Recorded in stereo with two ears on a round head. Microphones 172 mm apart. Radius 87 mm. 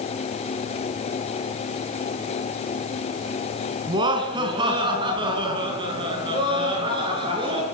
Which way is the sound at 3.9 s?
25° right (ahead or behind).